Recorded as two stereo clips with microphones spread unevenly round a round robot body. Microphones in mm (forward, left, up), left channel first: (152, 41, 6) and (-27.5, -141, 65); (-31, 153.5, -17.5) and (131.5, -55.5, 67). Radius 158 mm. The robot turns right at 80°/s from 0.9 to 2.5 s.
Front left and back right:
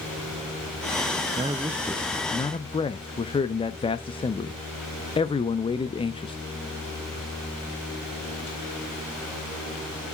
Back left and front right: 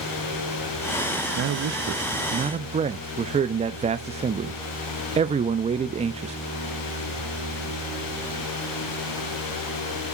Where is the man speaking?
65° right, 0.5 m; by 6.4 s 30° left, 0.5 m.